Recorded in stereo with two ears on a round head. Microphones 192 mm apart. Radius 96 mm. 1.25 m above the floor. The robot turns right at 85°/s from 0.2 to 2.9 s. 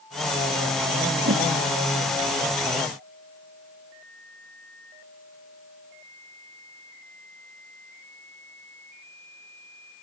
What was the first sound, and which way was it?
A whoosh, 45° right (ahead or behind).